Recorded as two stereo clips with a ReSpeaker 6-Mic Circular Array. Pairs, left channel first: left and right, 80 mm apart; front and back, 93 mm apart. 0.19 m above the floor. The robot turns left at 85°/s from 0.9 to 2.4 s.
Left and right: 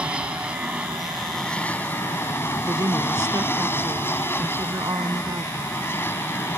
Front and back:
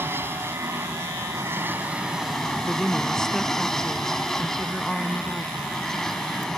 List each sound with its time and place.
0.0 s an aircraft: 150° right; by 6.6 s 80° left
2.6 s a woman speaking: 80° right